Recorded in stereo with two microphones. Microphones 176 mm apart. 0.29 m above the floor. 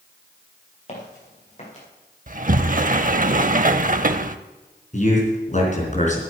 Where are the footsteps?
40° left (ahead or behind), 5.5 m.